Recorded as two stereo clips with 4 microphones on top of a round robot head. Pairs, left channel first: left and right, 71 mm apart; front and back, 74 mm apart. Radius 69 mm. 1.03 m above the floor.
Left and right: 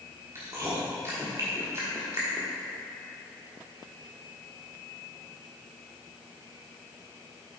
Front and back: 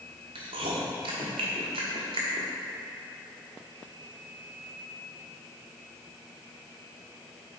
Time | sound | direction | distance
0.3 | chewing | 155° right | 1.1 m